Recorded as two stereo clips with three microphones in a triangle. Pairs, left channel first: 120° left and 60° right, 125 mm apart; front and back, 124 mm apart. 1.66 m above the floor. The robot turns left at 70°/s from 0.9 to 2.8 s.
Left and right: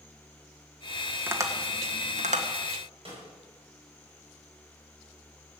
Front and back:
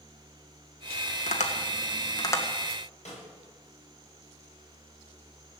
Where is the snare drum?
20° right, 8.5 m.